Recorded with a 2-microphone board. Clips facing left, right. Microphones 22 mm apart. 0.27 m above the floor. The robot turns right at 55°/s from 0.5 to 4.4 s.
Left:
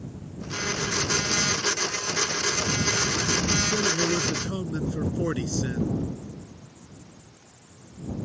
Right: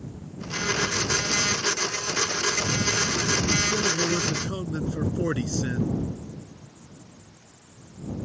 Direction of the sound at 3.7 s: 160° left.